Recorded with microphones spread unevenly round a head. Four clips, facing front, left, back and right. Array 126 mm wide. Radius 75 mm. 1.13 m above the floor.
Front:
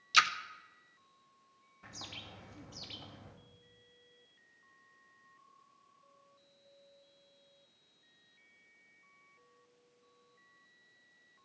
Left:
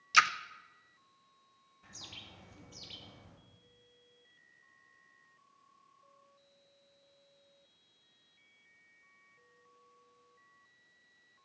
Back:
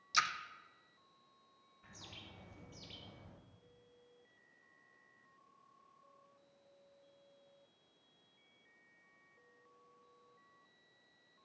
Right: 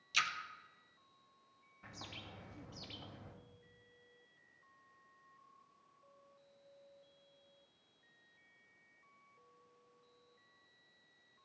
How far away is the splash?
About 0.6 m.